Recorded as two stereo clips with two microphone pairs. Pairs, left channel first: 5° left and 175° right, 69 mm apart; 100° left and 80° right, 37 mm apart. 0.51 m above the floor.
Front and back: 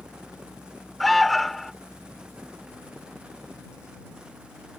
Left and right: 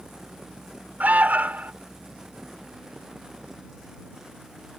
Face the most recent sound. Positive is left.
turn(degrees=-80)